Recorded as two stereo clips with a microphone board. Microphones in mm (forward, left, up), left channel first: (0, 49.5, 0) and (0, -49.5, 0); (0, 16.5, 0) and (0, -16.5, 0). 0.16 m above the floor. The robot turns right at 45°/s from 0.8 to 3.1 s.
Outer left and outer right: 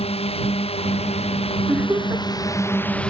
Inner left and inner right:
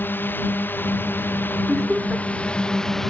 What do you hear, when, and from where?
0.0 s a drone: 80° left; by 3.1 s 10° left (ahead or behind)
1.7 s laughter: 10° right (ahead or behind); by 2.2 s 40° right (ahead or behind)